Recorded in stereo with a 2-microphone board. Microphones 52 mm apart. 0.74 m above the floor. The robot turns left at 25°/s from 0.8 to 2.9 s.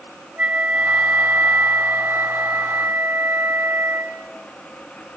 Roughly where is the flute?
Ahead right.